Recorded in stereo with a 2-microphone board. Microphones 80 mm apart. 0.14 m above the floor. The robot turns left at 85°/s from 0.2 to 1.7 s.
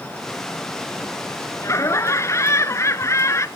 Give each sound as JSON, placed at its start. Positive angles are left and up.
{"t": 1.6, "sound": "laughter", "side_deg": 40, "distance_m": 1.6}